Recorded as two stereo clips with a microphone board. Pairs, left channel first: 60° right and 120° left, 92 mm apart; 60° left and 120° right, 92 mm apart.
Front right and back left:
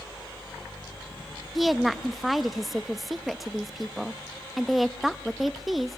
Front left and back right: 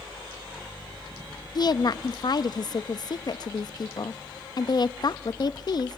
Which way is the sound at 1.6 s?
30° left.